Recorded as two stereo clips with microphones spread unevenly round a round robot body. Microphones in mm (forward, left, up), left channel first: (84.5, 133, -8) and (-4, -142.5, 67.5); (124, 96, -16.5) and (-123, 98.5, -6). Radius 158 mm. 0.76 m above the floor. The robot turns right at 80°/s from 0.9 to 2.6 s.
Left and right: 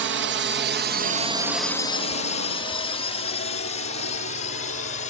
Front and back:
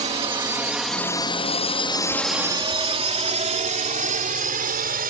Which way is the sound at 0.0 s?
140° right.